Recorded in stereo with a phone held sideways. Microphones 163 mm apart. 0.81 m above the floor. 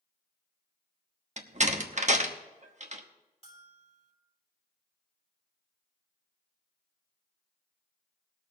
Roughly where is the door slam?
Right.